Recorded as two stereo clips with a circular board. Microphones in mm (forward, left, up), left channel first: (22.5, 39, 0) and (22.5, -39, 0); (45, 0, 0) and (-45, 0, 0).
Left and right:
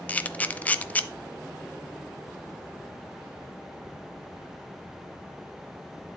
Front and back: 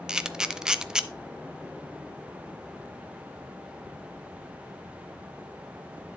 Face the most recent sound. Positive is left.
turn(degrees=115)